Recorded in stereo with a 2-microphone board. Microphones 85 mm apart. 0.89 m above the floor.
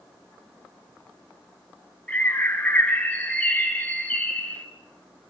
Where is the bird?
15° left (ahead or behind), 4 m.